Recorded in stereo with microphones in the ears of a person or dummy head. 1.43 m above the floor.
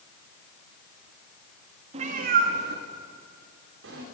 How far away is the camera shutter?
I don't hear a camera shutter.